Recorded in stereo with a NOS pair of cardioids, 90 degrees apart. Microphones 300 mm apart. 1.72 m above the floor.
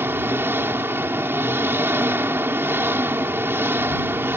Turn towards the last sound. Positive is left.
turn(degrees=-10)